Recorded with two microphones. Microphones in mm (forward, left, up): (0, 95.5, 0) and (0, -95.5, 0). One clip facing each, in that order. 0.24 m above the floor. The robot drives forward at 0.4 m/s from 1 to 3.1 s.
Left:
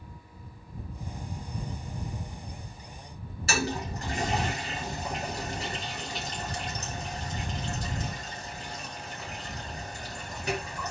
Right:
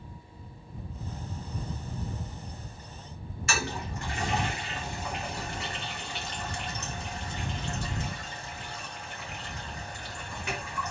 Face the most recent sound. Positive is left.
turn(degrees=35)  # may be behind; listen again after turning